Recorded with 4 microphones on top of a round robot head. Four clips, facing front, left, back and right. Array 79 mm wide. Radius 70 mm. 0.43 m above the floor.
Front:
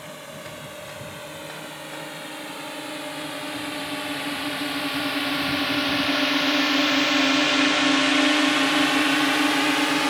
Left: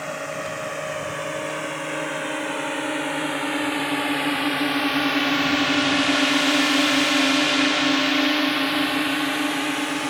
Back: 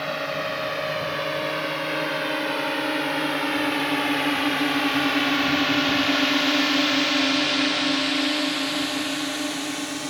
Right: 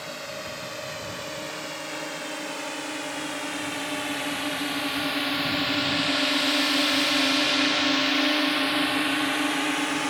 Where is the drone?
155° left; by 10.1 s straight ahead.